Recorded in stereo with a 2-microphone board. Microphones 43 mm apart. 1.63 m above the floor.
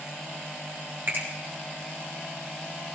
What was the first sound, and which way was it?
A finger snap, 55° right (ahead or behind).